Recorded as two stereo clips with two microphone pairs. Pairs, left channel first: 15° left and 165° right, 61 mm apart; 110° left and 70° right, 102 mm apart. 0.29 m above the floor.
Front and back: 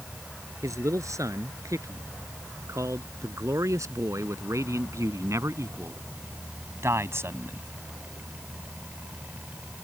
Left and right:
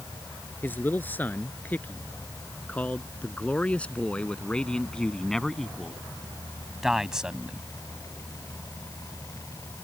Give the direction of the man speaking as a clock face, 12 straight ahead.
6 o'clock.